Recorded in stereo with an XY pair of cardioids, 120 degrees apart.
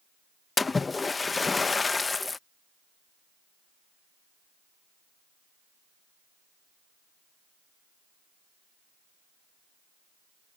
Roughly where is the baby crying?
No baby crying in this recording.